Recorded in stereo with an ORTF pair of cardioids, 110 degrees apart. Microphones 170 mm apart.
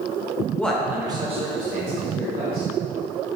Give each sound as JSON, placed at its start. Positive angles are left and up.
{"t": 0.6, "sound": "a man speaking", "azimuth_deg": 10, "distance_m": 0.7}